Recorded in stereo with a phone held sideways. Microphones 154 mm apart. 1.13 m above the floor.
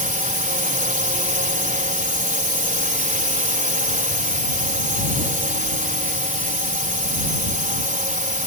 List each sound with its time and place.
0.0 s a drone: 60° right (ahead or behind)